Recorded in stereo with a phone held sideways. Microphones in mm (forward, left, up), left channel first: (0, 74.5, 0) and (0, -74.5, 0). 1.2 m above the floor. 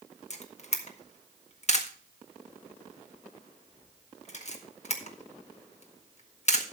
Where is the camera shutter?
50° left (ahead or behind), 1.6 m.